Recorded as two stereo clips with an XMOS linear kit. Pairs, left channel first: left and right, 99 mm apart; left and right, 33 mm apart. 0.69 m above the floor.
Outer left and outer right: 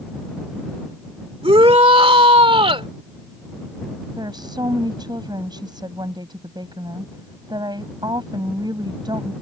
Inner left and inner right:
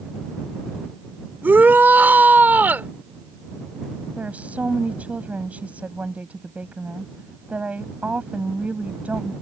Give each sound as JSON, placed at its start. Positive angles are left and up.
{"t": 1.4, "sound": "a shout", "side_deg": -70}
{"t": 4.2, "sound": "a woman speaking", "side_deg": -50}